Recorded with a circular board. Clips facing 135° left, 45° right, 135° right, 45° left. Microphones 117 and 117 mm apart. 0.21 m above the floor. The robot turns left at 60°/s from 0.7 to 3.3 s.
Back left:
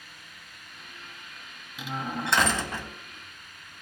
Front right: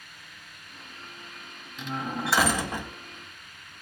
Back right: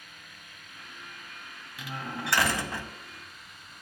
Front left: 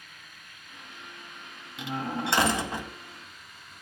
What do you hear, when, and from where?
1.8 s a door slam: 65° left, 1.1 m; by 2.9 s 5° right, 1.1 m